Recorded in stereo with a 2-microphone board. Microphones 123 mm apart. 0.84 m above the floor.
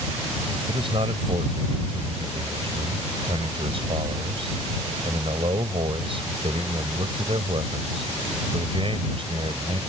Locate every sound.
0.7 s a man speaking: 50° right (ahead or behind)